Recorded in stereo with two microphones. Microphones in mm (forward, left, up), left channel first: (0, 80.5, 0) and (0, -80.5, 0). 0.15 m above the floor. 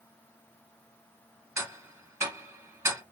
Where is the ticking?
15° right (ahead or behind), 1.0 m.